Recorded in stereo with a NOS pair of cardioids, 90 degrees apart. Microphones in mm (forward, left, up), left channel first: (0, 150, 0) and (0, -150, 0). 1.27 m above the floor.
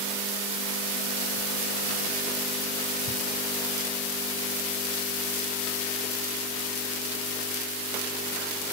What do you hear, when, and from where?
Only background noise.